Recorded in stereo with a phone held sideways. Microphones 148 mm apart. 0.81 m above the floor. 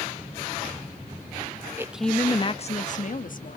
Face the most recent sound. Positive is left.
turn(degrees=65)  # may be behind; listen again after turning